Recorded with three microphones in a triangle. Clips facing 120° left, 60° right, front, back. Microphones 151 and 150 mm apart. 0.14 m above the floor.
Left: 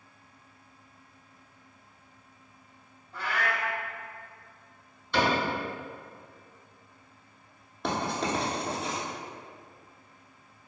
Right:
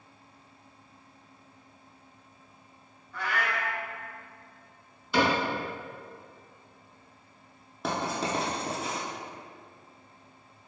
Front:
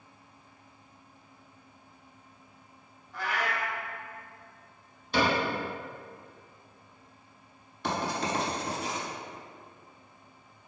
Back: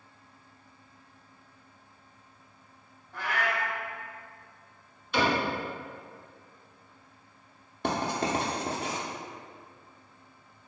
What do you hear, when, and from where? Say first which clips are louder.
3.1 s a cat meowing: even, back 1 dB; 170° left, 0.6 m
5.1 s a cupboard door: right 1 dB, even; 20° left, 1.4 m
7.8 s writing: left 1 dB, back 2 dB; 145° right, 0.5 m